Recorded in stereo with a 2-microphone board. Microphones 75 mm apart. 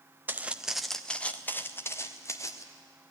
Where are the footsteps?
25° right (ahead or behind), 1.1 m; by 2.6 s 45° left (ahead or behind), 2 m.